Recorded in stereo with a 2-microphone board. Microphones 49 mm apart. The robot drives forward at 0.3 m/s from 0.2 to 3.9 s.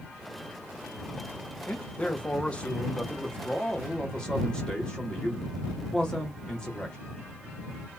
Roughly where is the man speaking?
Left.